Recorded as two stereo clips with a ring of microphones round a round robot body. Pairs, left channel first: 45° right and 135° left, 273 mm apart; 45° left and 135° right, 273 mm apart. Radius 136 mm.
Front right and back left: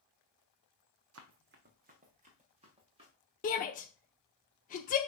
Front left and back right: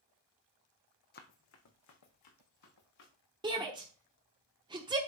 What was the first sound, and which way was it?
Running footsteps, 100° left.